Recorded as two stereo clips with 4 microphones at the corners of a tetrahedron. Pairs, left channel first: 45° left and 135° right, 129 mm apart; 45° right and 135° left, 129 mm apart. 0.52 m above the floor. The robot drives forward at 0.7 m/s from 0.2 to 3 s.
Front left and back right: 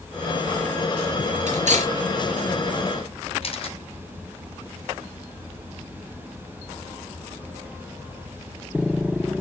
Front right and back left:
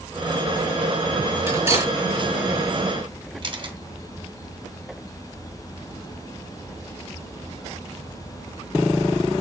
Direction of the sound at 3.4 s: 85° left.